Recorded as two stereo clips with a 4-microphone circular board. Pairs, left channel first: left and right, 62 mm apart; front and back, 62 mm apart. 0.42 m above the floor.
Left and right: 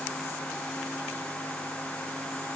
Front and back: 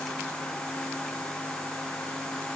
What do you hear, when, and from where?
Only background noise.